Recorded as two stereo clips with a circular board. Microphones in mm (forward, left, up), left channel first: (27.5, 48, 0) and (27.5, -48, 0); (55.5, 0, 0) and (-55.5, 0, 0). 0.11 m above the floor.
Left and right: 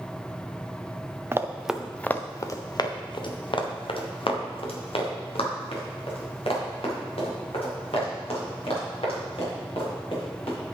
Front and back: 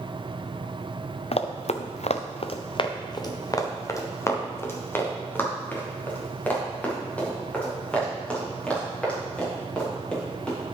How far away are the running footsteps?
About 0.9 m.